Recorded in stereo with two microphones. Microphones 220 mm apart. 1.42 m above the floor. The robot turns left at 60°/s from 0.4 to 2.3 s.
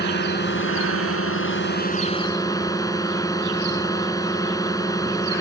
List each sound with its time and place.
0.0 s a drone: 130° left; by 5.4 s 15° left